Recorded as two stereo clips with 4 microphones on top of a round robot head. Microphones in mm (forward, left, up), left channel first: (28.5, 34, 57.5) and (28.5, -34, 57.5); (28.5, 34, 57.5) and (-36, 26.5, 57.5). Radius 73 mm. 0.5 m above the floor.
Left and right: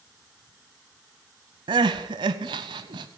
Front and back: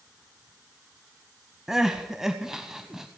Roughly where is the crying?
Right.